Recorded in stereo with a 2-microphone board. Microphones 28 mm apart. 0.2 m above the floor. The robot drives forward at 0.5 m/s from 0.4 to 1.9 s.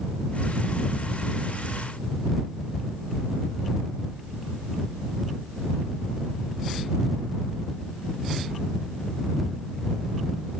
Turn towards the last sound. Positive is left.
No sound to turn to.